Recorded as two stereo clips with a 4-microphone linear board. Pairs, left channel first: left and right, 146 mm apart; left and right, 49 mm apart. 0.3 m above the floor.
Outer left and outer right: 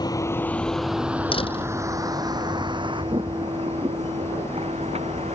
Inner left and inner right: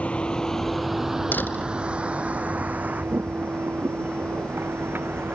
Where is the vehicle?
25° left (ahead or behind); by 5.3 s 45° right (ahead or behind).